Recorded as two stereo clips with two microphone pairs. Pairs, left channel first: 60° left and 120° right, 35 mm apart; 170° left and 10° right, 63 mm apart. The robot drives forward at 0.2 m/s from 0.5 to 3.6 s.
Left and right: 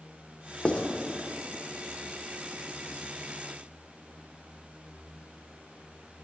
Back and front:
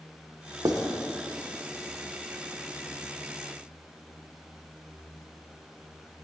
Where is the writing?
5° left, 1.0 m.